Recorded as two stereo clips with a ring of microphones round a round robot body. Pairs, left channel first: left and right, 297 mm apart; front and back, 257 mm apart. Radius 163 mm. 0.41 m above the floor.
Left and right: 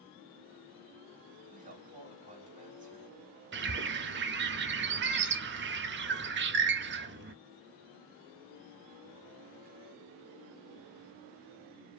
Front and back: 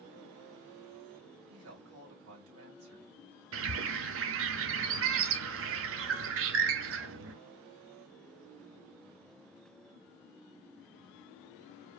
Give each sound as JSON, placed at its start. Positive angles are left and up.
{"t": 1.5, "sound": "a woman speaking", "azimuth_deg": -155, "distance_m": 2.0}
{"t": 3.5, "sound": "a bird", "azimuth_deg": -145, "distance_m": 0.6}